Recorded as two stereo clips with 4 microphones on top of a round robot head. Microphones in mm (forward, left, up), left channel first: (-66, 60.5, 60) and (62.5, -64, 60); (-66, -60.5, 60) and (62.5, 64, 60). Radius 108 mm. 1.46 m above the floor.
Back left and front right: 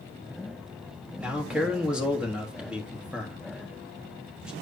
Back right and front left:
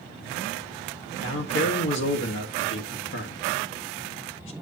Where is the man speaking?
130° right, 1.6 m.